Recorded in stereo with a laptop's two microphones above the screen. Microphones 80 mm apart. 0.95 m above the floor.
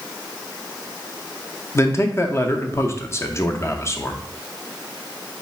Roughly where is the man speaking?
Left.